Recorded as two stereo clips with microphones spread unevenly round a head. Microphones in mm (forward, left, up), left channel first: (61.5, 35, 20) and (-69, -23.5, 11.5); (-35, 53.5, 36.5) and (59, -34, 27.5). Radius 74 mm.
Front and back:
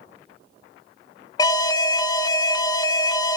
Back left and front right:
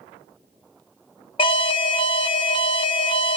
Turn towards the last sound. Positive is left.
turn(degrees=90)